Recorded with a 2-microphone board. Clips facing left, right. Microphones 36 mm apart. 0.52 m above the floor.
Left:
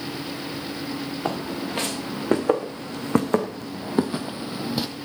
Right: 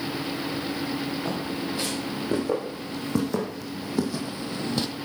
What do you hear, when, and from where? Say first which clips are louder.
1.2 s footsteps: left 1 dB; 75° left (ahead or behind), 2.5 m; by 4.9 s 5° left (ahead or behind), 0.8 m